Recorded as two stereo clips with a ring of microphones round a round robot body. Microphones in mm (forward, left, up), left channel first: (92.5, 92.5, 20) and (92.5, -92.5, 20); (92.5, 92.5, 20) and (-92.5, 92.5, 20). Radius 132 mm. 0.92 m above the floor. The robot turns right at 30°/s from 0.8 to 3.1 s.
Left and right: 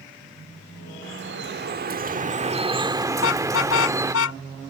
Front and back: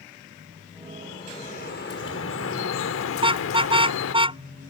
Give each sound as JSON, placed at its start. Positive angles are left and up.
{"t": 1.0, "sound": "dripping", "azimuth_deg": -80}
{"t": 3.1, "sound": "a car horn", "azimuth_deg": 115}